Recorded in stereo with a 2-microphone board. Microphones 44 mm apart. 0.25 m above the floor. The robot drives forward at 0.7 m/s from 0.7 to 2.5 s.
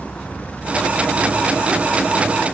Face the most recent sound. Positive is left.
No sound to turn to.